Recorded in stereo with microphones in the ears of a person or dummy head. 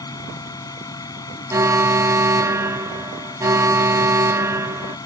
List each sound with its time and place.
0.0 s a fan: 15° left (ahead or behind)
1.5 s an alarm: 15° right (ahead or behind)